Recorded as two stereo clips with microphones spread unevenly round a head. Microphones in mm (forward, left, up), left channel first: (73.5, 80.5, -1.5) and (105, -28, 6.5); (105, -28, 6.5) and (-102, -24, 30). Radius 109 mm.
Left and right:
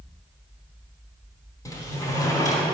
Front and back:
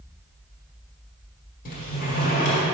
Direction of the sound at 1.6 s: 50° left.